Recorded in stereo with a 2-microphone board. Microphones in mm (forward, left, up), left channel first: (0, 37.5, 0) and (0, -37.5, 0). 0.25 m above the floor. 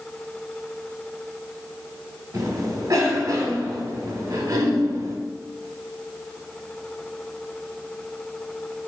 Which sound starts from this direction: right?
A cough, at 2.3 s.